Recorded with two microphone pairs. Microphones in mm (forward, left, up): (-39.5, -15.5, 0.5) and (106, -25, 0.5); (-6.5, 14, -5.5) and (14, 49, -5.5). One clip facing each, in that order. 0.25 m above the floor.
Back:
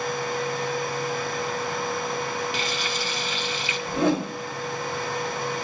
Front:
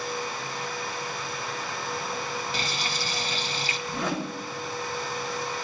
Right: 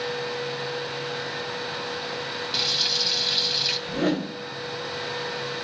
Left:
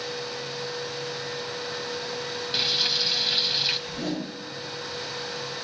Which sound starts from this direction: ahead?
Frying, at 2.5 s.